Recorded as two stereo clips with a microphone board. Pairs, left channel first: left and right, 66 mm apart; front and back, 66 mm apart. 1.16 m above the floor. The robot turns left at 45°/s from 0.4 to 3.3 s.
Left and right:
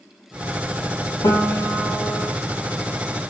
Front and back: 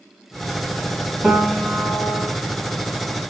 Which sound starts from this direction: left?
A piano, at 1.2 s.